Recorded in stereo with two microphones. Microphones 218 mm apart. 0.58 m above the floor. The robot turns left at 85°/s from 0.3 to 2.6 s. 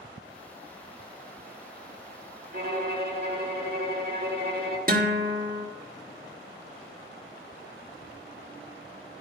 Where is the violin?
45° right (ahead or behind), 1.4 m; by 4.8 s 50° right (ahead or behind), 1.4 m.